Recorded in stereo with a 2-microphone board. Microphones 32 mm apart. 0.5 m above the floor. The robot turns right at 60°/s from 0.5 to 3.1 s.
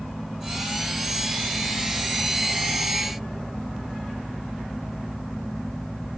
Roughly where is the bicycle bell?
No bicycle bell in this recording.